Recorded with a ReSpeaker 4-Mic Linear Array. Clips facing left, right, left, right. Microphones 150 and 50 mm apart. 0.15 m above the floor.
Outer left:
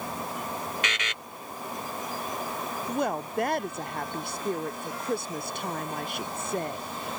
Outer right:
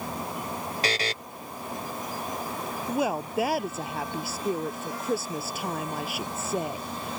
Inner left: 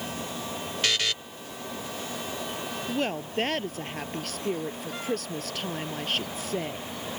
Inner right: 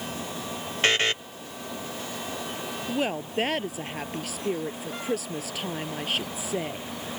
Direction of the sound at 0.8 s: 35° right (ahead or behind).